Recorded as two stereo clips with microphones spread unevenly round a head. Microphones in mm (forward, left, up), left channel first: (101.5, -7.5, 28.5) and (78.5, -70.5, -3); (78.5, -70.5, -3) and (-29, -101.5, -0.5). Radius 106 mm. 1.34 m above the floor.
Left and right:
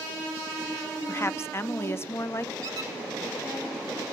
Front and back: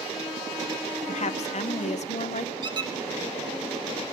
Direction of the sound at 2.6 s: 165° right.